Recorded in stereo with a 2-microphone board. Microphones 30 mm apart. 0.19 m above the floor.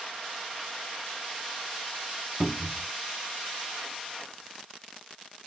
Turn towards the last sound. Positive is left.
turn(degrees=5)  # may be behind; listen again after turning